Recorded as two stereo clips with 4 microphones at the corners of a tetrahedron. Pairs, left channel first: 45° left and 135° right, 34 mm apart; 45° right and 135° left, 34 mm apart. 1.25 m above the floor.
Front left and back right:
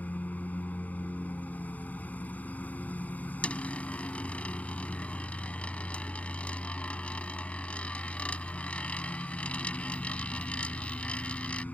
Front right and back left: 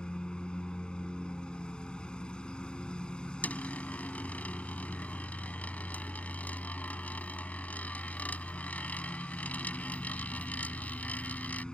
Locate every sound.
0.0 s a lawn mower: 15° left
3.4 s a dropped coin: 5° right